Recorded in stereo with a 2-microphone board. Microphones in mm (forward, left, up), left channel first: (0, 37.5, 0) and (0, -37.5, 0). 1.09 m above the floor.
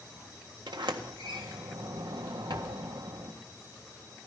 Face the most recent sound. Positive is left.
turn(degrees=-75)  # may be behind; listen again after turning